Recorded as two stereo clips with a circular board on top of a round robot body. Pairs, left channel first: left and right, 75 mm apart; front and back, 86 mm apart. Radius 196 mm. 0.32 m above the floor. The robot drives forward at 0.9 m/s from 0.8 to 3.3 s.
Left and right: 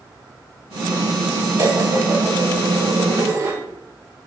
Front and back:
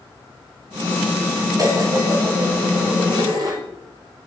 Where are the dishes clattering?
135° right, 7 m; by 3.6 s 145° right, 8 m.